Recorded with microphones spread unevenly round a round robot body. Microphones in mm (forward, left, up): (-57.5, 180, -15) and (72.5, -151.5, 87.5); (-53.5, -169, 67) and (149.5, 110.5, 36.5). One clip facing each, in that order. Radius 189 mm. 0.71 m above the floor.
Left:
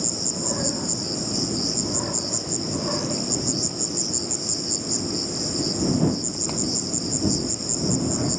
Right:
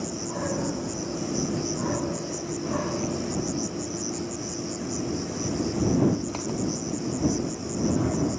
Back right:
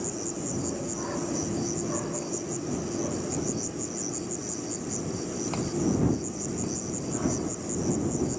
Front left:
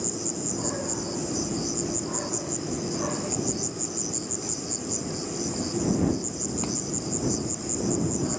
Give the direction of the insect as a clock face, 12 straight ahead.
8 o'clock.